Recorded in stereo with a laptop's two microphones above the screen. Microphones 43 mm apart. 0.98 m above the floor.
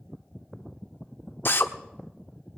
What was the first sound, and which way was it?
A drill, 60° left (ahead or behind).